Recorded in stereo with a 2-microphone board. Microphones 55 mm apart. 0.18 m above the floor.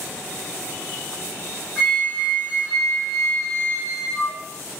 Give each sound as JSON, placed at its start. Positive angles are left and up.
{"t": 1.8, "sound": "a flute", "side_deg": -5, "distance_m": 1.4}